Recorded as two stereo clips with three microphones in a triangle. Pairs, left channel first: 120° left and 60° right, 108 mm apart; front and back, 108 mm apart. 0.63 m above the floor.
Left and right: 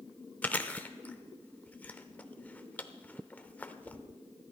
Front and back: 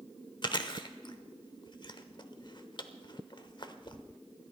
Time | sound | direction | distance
0.4 | chewing | 45° left | 0.8 m